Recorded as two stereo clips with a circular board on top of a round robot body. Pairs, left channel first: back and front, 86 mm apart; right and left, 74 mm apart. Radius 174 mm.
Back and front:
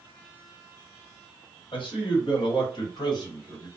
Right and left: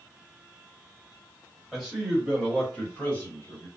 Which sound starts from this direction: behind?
A man speaking, at 1.7 s.